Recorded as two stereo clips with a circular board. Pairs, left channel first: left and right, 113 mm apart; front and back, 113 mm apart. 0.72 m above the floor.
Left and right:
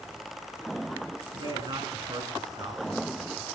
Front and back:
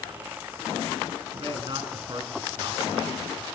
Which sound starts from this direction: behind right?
A man speaking, at 1.3 s.